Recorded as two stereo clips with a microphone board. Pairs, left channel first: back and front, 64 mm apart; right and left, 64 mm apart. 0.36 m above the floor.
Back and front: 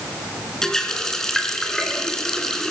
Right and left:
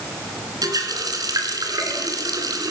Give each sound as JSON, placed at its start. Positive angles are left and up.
{"t": 0.6, "sound": "a running tap", "azimuth_deg": 100, "distance_m": 2.5}